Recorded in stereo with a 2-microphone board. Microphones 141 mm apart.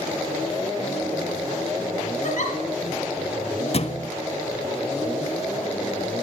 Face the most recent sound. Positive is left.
turn(degrees=45)  # may be behind; listen again after turning